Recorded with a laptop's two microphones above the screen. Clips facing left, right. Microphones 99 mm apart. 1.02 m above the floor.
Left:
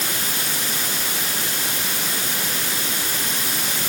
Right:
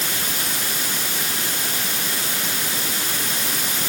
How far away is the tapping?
I don't hear tapping.